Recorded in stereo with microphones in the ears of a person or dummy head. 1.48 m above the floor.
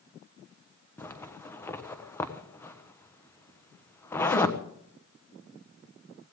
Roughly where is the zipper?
Centre.